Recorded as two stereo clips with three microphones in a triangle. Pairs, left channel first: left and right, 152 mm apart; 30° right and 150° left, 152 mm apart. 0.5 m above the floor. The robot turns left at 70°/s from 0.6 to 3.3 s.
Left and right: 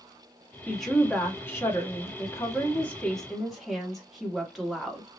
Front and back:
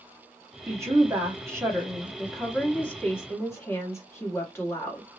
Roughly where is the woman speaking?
Behind.